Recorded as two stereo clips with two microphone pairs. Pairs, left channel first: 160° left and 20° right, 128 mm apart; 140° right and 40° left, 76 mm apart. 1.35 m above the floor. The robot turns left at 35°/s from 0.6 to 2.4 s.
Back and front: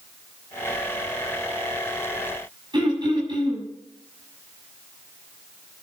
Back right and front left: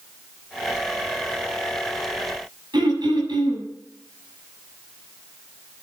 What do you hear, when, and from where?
2.7 s throat clearing: 35° left, 7.5 m